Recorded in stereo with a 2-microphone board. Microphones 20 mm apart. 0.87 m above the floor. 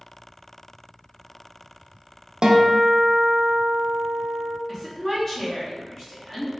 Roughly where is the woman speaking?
Left.